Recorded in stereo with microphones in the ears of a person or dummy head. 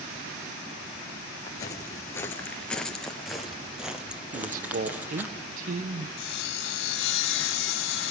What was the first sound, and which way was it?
Footsteps, 25° left (ahead or behind).